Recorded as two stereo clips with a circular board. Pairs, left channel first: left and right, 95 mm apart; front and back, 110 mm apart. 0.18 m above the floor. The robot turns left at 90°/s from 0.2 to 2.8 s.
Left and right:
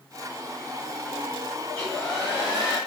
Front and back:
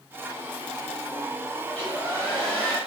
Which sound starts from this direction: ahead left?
A hair dryer, at 1.7 s.